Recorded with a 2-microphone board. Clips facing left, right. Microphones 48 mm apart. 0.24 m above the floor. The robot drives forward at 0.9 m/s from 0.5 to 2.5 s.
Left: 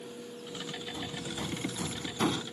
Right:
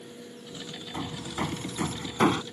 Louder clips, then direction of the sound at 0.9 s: Right 8 dB; 50° right (ahead or behind).